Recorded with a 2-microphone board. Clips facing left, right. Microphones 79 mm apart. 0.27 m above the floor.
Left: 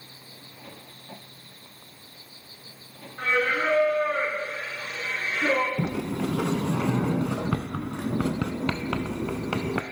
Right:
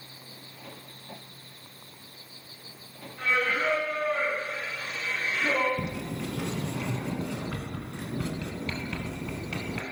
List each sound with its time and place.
3.2 s singing: 40° left (ahead or behind), 3 m
5.8 s a sliding door: 75° left (ahead or behind), 0.7 m